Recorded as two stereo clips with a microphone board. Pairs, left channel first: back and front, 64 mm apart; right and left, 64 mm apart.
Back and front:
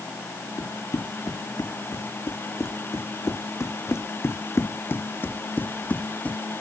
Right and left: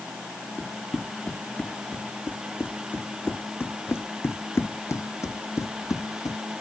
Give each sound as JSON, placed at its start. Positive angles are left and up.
{"t": 0.6, "sound": "running footsteps", "azimuth_deg": -155}